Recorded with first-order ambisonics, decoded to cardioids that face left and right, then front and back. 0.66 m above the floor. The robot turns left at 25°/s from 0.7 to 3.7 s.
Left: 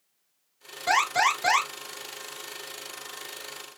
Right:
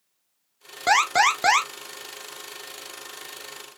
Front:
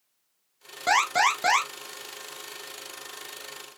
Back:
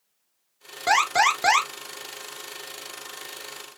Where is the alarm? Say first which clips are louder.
Right 4 dB, back 2 dB; 95° right, 0.8 m; by 1.7 s 115° right, 0.8 m.